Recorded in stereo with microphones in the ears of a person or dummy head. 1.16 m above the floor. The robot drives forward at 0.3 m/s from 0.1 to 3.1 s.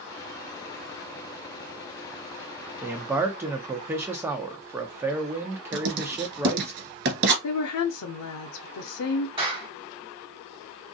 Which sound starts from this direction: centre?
A man speaking, at 2.8 s.